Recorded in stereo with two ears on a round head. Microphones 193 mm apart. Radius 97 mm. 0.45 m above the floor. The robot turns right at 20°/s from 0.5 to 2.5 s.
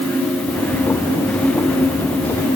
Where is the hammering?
No hammering in this recording.